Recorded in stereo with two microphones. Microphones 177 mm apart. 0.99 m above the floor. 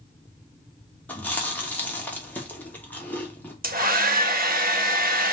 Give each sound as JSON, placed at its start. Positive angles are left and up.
{"t": 1.1, "sound": "chewing", "side_deg": 10, "distance_m": 1.4}
{"t": 3.6, "sound": "a hair dryer", "side_deg": -55, "distance_m": 0.9}